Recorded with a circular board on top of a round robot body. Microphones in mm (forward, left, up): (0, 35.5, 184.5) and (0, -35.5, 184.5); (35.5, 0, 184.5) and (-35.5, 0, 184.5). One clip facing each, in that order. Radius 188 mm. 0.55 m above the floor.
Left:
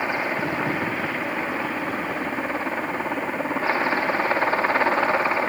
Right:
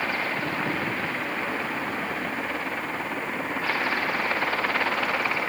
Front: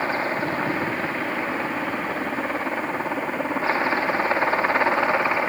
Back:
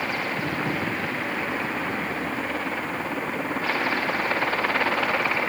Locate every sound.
0.0 s a helicopter: 30° left; by 5.5 s 50° left